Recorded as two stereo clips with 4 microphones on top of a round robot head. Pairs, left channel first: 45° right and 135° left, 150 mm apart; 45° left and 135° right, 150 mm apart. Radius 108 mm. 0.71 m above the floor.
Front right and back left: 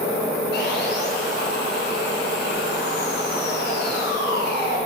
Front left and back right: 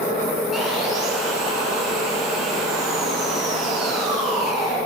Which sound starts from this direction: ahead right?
Sawing, at 0.5 s.